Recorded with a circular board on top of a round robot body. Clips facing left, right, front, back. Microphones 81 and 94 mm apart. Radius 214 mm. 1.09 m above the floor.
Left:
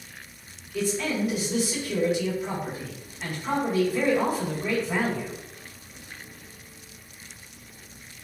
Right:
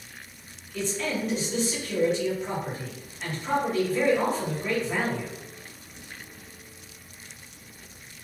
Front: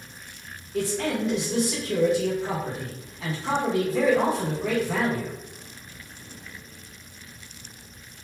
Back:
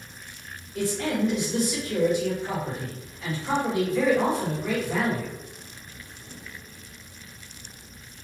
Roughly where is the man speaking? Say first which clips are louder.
Left 3 dB, even; ahead.